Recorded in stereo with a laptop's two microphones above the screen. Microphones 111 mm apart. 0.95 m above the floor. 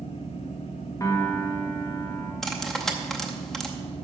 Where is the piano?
30° left (ahead or behind), 1.2 m.